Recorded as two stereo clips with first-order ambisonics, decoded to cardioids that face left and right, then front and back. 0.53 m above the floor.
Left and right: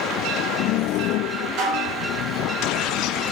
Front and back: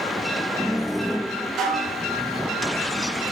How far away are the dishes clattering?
About 4 m.